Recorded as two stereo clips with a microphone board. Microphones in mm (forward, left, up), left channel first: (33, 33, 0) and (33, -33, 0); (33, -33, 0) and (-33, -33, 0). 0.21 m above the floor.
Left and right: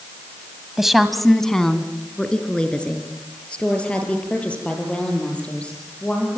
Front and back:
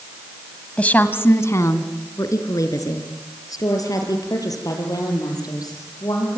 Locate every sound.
0.8 s a woman speaking: 15° right, 1.4 m; by 6.4 s 20° left, 9 m